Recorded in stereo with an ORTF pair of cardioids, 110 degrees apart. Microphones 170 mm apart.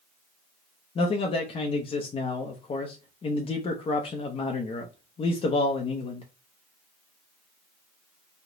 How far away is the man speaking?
About 0.6 m.